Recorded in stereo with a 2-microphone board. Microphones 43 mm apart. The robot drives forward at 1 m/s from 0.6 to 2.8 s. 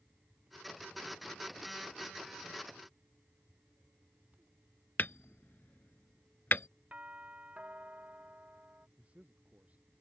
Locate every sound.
5.0 s hammering: 45° left (ahead or behind)
6.9 s a doorbell: 30° right (ahead or behind)
9.0 s a man speaking: 30° right (ahead or behind)